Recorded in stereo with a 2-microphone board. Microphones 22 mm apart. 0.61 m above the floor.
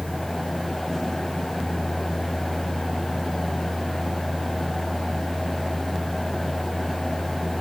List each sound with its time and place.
Only background noise.